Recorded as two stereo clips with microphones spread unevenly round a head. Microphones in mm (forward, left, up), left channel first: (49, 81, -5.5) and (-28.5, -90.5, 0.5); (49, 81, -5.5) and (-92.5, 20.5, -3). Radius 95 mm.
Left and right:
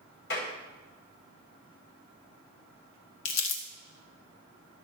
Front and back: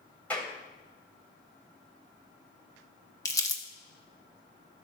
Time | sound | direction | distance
0.3 | a clap | 105° left | 4 m
3.2 | crumpling | 90° left | 1.3 m